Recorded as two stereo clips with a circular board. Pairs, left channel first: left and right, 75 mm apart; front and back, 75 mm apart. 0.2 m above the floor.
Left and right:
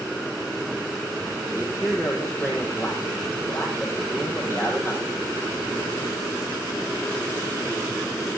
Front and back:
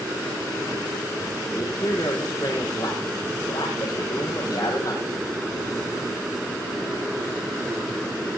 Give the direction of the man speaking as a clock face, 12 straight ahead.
11 o'clock.